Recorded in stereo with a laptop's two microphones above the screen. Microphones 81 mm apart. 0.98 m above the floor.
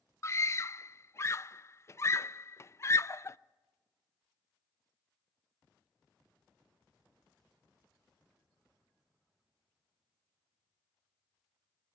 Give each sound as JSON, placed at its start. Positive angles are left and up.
{"t": 0.2, "sound": "a scream", "side_deg": 35, "distance_m": 0.5}